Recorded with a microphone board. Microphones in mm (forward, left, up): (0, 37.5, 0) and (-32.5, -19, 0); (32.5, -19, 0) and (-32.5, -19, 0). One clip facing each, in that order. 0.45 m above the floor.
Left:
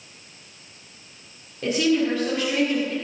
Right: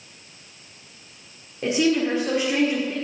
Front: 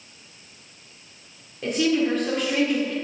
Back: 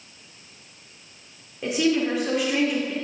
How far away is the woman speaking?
About 1.4 m.